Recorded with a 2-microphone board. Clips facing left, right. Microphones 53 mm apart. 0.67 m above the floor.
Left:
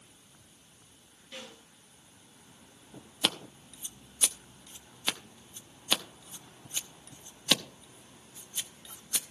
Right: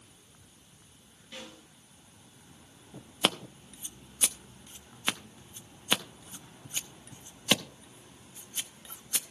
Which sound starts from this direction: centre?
A snare drum, at 1.3 s.